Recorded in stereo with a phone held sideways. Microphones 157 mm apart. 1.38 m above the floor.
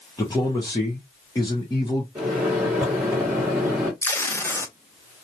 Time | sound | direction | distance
0.2 | a man speaking | 20° left (ahead or behind) | 0.9 m
2.1 | a microwave | 10° right (ahead or behind) | 1.5 m
4.0 | tape being pulled | 15° left (ahead or behind) | 0.6 m